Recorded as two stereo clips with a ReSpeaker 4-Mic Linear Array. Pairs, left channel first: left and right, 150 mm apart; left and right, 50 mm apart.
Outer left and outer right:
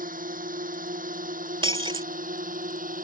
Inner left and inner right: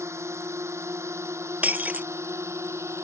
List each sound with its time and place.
0.0 s a drone: 70° right (ahead or behind); by 3.0 s 65° right (ahead or behind)
1.6 s breaking glass: 35° right (ahead or behind)